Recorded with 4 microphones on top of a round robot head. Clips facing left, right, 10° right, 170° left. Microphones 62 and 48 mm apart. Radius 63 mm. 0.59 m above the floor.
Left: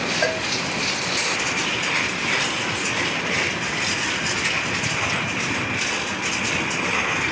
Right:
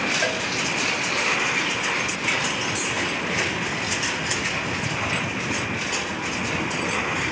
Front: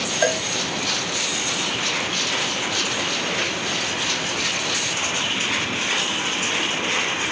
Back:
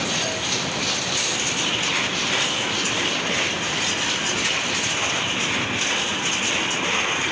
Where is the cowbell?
15° left, 0.8 m.